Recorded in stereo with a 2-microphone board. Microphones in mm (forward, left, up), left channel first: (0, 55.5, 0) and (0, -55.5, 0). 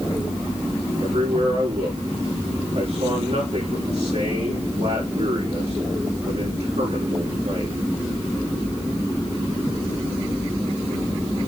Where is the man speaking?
70° right (ahead or behind), 6 m.